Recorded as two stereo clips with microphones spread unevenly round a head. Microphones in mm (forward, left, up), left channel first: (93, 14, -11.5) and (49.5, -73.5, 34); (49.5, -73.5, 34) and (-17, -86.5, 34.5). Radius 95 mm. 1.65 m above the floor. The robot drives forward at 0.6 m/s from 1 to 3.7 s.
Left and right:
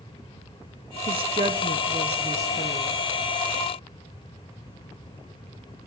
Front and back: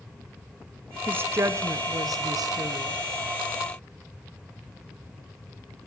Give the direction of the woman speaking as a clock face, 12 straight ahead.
3 o'clock.